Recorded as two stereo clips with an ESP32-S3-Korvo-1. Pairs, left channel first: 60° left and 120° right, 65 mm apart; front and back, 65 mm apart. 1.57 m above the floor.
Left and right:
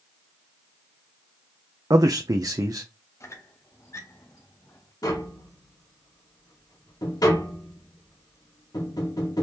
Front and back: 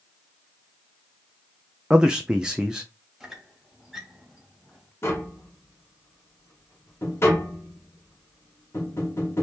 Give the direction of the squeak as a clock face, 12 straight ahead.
9 o'clock.